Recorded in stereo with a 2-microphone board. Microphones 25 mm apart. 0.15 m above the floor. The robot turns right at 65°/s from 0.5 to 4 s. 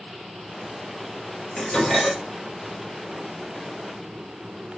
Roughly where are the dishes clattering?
Behind left.